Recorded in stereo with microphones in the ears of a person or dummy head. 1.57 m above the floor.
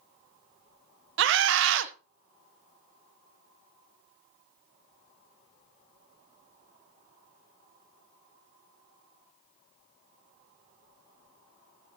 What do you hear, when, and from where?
1.2 s a scream: 70° right (ahead or behind), 1.5 m